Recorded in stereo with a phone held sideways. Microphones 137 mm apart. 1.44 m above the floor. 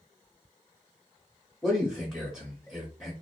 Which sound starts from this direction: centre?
A man speaking, at 1.6 s.